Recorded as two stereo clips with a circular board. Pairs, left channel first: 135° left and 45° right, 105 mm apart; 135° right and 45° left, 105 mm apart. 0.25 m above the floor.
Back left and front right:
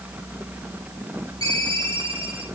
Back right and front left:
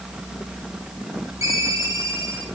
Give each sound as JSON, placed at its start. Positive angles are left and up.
{"t": 1.4, "sound": "a ringtone", "azimuth_deg": -15, "distance_m": 4.5}